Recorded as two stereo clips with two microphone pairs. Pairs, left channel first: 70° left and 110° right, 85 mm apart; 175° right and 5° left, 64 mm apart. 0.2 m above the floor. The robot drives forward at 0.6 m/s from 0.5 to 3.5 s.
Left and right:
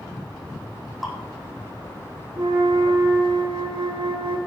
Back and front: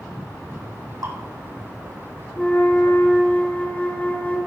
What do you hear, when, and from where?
1.0 s dripping: 20° right, 3 m
2.4 s a flute: 105° right, 3 m; by 4.4 s 115° right, 3.5 m